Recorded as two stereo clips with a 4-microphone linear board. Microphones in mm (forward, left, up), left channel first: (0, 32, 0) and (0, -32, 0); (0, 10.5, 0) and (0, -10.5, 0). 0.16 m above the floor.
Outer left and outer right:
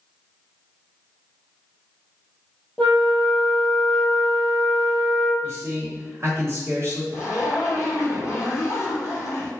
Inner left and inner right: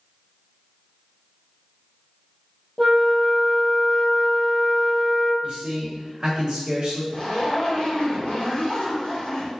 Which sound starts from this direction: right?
A man speaking, at 5.4 s.